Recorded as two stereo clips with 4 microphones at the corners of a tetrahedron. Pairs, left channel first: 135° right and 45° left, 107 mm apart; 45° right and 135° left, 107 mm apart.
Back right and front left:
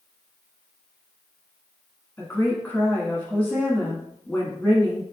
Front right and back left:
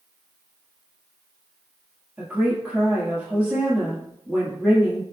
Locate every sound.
2.2 s a woman speaking: 175° right, 1.1 m